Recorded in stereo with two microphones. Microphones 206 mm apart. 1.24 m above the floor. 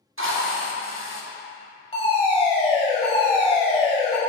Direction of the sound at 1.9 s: 30° left (ahead or behind).